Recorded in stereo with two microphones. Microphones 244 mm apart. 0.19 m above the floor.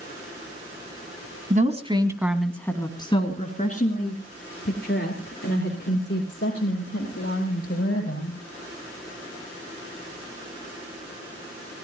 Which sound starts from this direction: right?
A woman speaking, at 1.5 s.